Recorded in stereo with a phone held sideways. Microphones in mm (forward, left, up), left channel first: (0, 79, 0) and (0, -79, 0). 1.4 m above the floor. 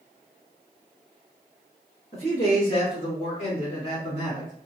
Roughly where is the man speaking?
Left.